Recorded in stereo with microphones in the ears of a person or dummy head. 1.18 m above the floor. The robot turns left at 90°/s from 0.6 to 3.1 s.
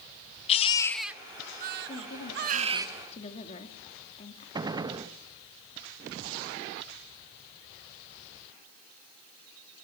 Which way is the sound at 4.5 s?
20° right (ahead or behind).